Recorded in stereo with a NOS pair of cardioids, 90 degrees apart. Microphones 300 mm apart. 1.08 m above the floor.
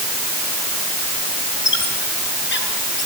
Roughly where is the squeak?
Ahead left.